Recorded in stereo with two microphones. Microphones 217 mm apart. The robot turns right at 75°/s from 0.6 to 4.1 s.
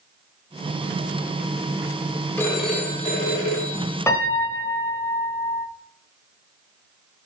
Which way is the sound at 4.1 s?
15° left (ahead or behind).